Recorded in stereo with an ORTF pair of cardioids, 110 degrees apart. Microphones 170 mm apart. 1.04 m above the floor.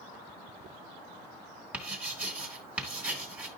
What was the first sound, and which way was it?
Writing, 5° right.